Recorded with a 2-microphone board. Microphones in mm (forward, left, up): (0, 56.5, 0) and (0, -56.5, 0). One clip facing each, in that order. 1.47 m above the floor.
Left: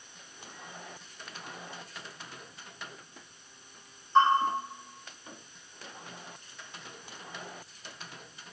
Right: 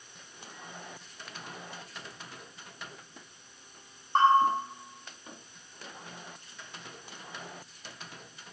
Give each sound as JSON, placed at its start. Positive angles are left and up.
{"t": 4.2, "sound": "a bell", "side_deg": -60, "distance_m": 5.0}